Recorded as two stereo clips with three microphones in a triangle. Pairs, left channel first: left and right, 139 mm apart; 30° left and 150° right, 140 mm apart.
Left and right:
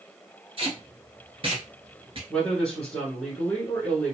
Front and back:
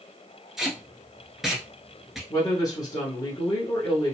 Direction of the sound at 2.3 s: 10° left.